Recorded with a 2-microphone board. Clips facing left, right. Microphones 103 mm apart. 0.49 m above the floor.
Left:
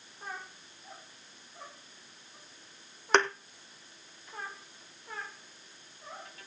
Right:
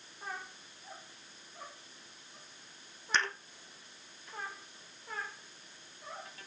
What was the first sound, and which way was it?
A thud, 65° left (ahead or behind).